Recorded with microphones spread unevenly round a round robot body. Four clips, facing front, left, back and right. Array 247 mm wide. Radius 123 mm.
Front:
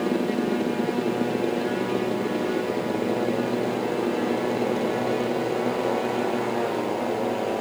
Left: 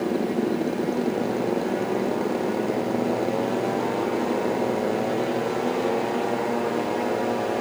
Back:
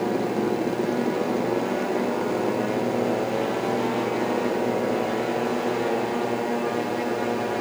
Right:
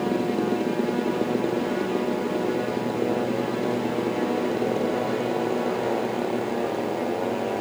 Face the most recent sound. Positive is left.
No sound to turn to.